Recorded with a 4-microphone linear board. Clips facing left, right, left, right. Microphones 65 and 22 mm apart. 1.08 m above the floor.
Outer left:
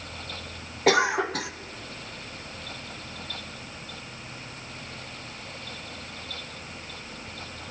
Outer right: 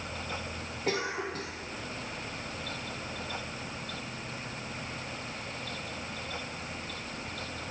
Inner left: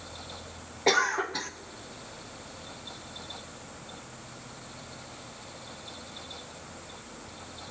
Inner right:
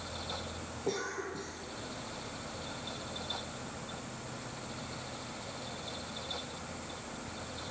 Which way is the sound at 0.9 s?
85° left.